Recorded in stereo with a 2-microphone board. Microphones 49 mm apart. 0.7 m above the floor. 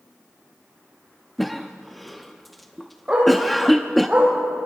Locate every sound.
1.4 s a cough: centre (ahead or behind), 0.6 m
3.1 s a dog barking: 20° right (ahead or behind), 6.5 m